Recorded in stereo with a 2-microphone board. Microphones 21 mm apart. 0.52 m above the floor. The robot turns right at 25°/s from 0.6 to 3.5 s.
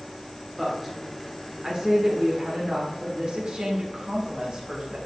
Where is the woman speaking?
165° right, 1.7 m; by 5.0 s 90° right, 1.7 m.